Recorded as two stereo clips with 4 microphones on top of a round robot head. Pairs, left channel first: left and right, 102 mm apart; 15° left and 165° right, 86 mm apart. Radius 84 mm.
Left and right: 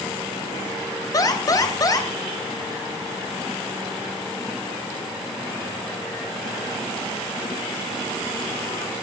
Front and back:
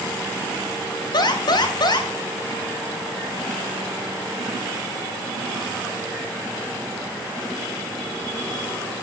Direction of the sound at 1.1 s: 40° left.